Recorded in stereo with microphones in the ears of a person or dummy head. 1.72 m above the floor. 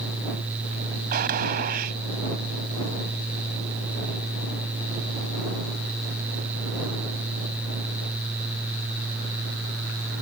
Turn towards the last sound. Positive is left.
turn(degrees=-50)  # may be behind; listen again after turning